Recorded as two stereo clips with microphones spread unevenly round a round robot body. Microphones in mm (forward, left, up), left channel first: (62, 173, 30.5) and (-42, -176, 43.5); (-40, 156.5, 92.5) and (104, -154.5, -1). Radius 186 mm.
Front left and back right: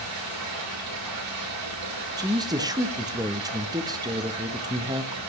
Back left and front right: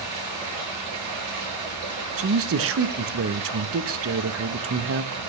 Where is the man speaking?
25° right, 0.8 m.